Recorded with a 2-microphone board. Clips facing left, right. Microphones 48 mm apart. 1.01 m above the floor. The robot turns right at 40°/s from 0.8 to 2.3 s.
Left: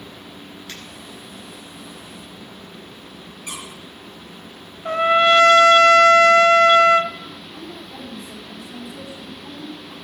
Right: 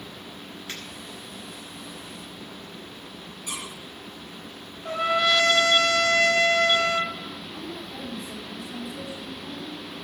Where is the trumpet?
40° left (ahead or behind), 0.7 m.